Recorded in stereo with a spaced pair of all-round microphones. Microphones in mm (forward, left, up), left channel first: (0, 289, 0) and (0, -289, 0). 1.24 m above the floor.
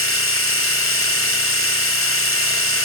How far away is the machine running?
About 1.5 m.